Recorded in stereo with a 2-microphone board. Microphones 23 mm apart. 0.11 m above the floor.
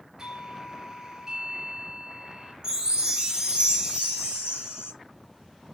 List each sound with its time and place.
0.2 s a doorbell: 30° right (ahead or behind), 3.5 m
2.6 s a chime: 40° right (ahead or behind), 1.5 m